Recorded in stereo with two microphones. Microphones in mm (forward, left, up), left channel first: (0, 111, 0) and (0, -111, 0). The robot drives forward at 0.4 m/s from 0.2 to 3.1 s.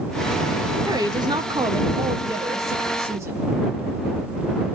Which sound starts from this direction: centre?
A woman speaking, at 0.8 s.